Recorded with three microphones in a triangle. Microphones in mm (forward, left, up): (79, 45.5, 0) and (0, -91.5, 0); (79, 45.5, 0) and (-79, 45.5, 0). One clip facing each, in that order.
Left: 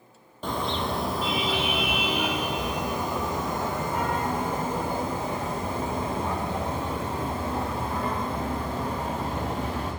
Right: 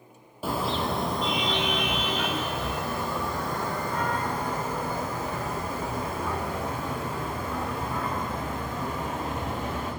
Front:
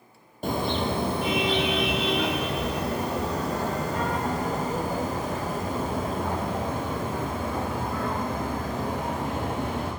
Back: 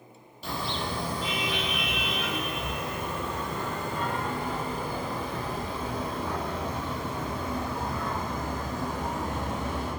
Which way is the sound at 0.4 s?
35° right.